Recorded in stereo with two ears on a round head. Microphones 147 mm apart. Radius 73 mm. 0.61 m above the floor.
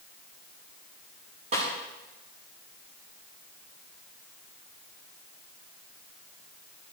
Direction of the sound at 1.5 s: 45° right (ahead or behind).